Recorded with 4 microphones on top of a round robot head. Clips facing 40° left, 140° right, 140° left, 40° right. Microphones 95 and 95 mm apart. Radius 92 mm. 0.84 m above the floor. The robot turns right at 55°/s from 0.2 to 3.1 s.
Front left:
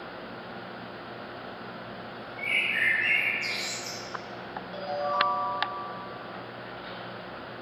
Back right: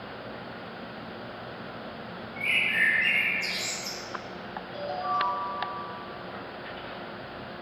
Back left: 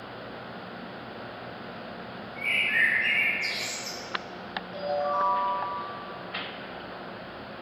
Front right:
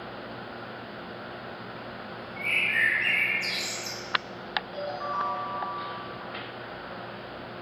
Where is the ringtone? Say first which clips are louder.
Front left 1 dB, back left 6 dB; 40° left, 1.2 m.